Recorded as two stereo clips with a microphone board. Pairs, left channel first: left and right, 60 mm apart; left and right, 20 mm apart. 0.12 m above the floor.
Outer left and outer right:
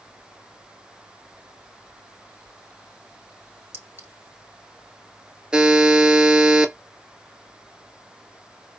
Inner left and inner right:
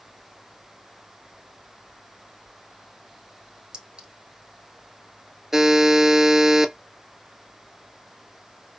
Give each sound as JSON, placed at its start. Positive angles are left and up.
{"t": 3.7, "sound": "a clink", "side_deg": -40, "distance_m": 1.2}
{"t": 5.5, "sound": "a buzzer", "side_deg": -15, "distance_m": 0.5}